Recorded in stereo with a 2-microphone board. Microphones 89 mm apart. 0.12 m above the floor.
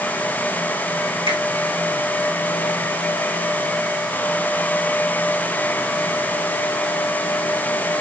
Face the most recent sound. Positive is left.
turn(degrees=-75)  # may be behind; listen again after turning